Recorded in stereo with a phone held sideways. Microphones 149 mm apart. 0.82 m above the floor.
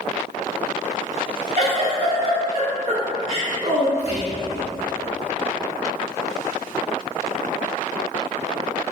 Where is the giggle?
45° right (ahead or behind), 1.3 m.